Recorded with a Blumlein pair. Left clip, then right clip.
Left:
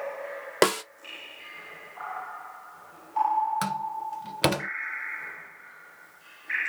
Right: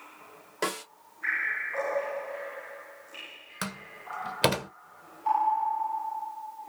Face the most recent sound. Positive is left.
turn(degrees=0)